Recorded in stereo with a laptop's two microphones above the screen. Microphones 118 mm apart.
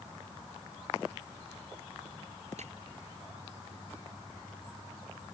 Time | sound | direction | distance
2.6 | breaking glass | 75° right (ahead or behind) | ?